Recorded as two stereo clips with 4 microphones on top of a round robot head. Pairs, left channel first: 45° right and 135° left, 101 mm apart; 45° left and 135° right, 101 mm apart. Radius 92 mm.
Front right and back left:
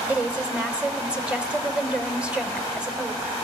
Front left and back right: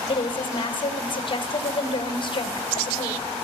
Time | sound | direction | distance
0.1 | a woman speaking | 60° left | 1.9 m